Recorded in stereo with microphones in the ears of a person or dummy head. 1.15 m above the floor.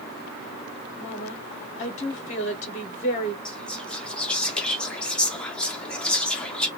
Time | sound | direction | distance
1.0 | a woman speaking | 40° left (ahead or behind) | 0.8 m
3.5 | whispering | 10° left (ahead or behind) | 0.6 m